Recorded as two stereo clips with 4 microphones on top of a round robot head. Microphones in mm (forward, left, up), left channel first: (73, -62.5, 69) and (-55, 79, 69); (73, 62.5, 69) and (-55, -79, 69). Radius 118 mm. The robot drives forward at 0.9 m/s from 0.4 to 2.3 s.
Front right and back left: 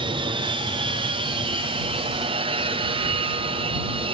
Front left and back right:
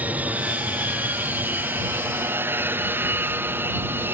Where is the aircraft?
155° left; by 4.1 s 160° left.